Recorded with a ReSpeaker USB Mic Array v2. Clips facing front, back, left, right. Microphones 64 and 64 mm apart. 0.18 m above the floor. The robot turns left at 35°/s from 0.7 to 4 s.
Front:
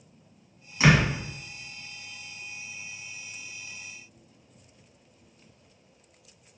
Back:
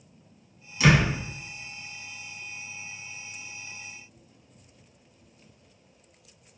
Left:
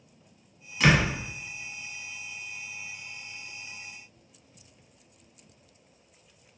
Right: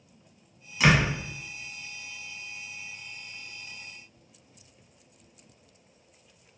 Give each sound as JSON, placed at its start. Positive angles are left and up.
{"t": 0.8, "sound": "a door slam", "azimuth_deg": -5, "distance_m": 1.0}